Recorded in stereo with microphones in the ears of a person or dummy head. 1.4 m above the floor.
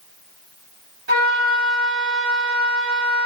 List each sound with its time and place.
1.1 s a flute: 55° right (ahead or behind), 1.1 m